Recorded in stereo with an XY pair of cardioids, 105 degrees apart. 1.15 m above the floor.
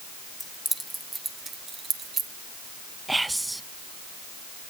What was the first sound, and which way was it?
Keys jangling, 15° left.